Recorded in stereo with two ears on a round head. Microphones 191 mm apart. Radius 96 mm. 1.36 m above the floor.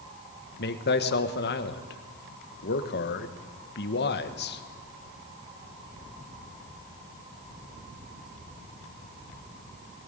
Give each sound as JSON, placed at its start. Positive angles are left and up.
{"t": 0.6, "sound": "a man speaking", "side_deg": 55, "distance_m": 1.7}